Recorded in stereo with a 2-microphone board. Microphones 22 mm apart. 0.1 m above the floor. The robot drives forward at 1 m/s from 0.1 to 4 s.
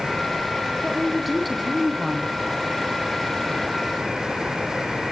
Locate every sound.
0.8 s a woman speaking: centre (ahead or behind), 3.5 m